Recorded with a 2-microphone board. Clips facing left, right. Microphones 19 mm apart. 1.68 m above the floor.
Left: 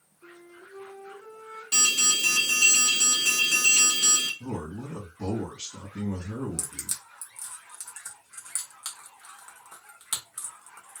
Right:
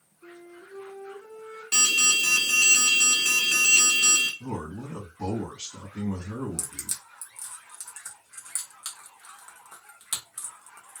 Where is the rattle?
No rattle in this recording.